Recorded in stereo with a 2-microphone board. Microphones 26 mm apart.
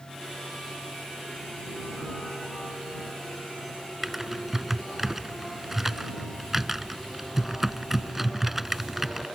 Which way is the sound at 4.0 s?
15° right (ahead or behind).